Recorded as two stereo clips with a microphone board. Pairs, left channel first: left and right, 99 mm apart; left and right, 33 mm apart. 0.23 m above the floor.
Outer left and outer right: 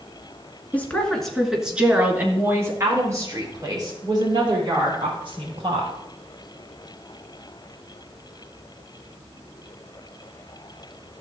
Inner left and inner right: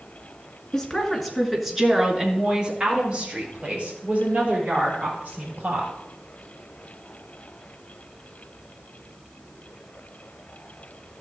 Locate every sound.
0.7 s a woman speaking: 15° left (ahead or behind), 2.5 m; by 5.9 s 55° right (ahead or behind), 7 m